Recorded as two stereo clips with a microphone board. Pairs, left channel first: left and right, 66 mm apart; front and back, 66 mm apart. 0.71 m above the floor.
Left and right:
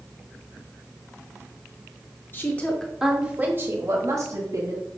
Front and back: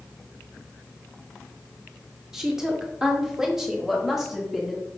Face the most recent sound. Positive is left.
turn(degrees=-95)